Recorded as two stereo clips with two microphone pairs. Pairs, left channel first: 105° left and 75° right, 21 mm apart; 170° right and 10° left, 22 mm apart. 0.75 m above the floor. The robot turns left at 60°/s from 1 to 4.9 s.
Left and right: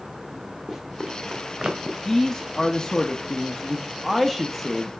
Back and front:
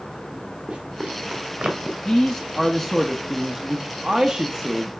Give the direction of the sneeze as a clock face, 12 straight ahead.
No sneeze in this recording.